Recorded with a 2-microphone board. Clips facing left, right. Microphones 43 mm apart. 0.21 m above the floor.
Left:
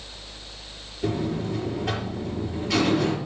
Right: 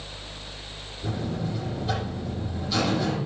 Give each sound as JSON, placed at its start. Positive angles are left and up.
{"t": 1.0, "sound": "a buzzer", "side_deg": 70, "distance_m": 5.0}